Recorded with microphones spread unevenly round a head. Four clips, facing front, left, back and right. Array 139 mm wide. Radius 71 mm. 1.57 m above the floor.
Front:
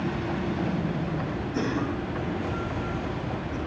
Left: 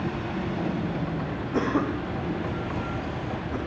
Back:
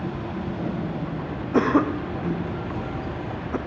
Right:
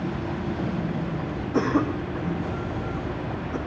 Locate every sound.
1.5 s a cough: 175° right, 0.7 m